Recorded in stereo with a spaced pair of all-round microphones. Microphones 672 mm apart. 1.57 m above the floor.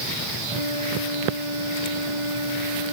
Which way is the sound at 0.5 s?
85° left.